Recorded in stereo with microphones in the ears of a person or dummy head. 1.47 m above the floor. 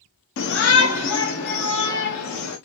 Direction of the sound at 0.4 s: 75° left (ahead or behind).